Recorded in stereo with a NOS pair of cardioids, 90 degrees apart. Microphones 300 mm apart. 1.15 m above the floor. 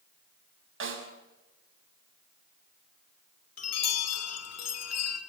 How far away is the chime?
About 3 m.